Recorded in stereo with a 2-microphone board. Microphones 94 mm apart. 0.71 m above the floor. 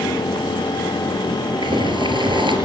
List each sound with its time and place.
1.6 s boiling: 60° right (ahead or behind), 4 m